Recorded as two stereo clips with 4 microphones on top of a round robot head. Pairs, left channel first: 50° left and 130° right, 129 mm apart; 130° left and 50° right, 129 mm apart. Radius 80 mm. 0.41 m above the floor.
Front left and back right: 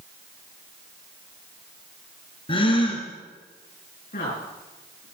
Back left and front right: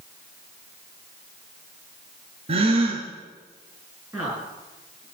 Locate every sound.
2.5 s a gasp: 5° right, 3.5 m
4.1 s a woman speaking: 25° left, 7 m